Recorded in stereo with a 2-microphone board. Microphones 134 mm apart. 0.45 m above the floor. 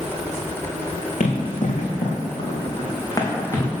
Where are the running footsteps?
75° left (ahead or behind), 2 m; by 3.7 s 15° left (ahead or behind), 2.5 m.